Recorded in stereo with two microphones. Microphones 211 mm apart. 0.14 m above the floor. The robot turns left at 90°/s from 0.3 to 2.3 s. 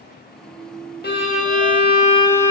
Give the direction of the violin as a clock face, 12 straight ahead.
8 o'clock.